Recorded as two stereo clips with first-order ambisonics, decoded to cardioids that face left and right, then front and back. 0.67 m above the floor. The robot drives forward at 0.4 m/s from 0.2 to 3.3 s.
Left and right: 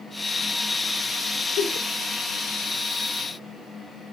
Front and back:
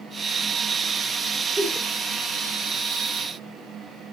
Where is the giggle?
95° left, 1.9 m; by 1.9 s 100° left, 1.9 m.